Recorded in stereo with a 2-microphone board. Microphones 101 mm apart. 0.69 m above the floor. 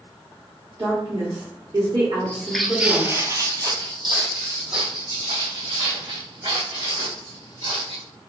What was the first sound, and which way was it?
A woman speaking, 55° right (ahead or behind).